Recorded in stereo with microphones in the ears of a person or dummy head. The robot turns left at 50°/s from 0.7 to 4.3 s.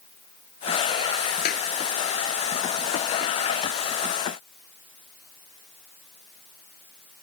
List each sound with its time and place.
1.4 s a clap: 60° left (ahead or behind); by 1.7 s 50° left (ahead or behind)